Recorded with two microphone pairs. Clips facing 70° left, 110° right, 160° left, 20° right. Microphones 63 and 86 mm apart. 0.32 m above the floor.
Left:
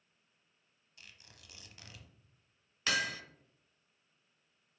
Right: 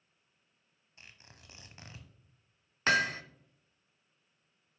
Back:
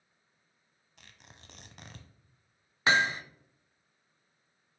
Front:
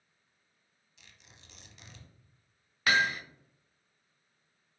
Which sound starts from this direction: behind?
Tearing paper, at 1.0 s.